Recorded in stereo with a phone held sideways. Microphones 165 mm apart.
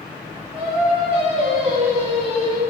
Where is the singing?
35° right (ahead or behind), 4 m.